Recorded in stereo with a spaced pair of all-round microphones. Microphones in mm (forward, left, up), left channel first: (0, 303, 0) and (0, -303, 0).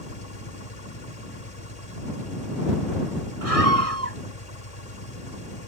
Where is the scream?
60° right (ahead or behind).